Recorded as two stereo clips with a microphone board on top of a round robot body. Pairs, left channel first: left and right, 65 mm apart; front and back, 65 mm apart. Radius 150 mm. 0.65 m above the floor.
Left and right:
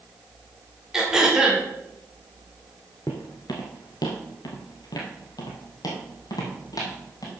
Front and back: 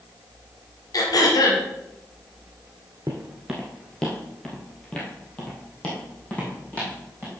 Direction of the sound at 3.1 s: 145° left.